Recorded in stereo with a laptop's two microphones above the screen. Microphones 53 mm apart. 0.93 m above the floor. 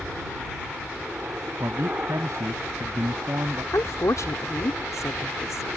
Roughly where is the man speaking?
Right.